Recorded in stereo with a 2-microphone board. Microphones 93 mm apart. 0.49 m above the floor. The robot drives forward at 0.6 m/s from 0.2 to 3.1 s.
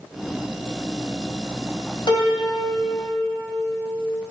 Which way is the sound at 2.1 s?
55° left (ahead or behind).